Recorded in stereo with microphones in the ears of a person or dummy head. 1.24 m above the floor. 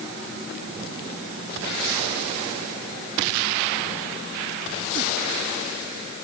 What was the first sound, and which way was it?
Only background noise.